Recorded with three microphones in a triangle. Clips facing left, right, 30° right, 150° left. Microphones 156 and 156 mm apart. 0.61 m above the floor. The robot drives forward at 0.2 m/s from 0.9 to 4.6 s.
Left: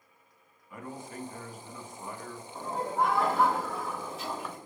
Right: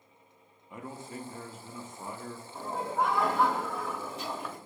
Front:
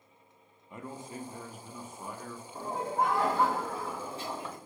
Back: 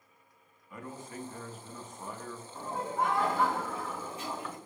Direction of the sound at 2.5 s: Straight ahead.